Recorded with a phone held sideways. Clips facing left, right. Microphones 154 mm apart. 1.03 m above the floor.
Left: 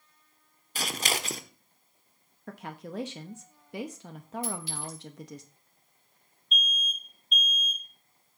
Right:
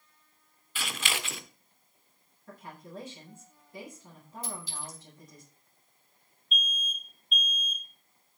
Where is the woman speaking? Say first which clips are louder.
Left 6 dB; 80° left, 1.0 m.